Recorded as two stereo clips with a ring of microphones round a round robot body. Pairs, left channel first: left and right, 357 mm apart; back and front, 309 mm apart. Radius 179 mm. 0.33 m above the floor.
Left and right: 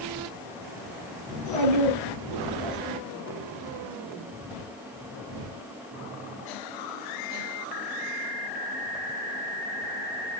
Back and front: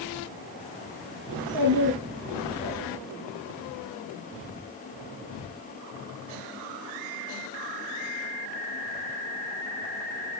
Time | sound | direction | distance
1.3 | a child speaking | 75° right | 2.0 m